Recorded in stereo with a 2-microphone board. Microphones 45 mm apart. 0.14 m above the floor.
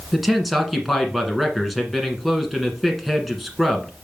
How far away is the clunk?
No clunk in this recording.